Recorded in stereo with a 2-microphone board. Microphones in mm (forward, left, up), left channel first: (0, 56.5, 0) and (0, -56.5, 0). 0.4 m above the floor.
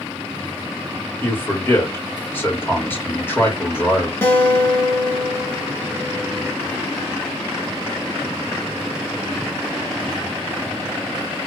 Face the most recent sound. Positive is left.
turn(degrees=25)  # may be behind; listen again after turning